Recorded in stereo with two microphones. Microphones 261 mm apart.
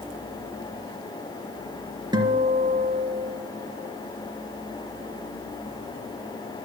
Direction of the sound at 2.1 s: 15° right (ahead or behind).